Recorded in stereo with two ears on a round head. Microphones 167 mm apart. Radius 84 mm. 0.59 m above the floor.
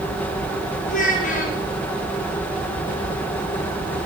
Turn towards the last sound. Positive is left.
turn(degrees=50)  # may be behind; listen again after turning